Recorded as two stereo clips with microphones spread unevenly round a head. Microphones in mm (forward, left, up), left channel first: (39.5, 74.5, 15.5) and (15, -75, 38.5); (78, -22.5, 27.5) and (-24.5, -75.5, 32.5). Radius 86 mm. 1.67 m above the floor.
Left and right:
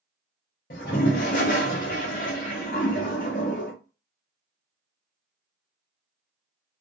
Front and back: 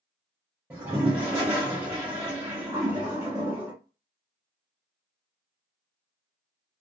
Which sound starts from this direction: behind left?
A toilet flushing, at 0.7 s.